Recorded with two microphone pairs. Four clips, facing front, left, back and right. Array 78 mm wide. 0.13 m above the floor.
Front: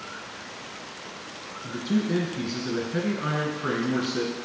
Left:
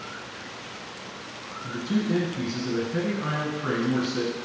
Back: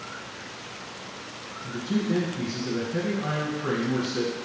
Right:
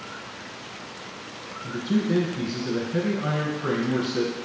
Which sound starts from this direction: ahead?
A man speaking, at 1.6 s.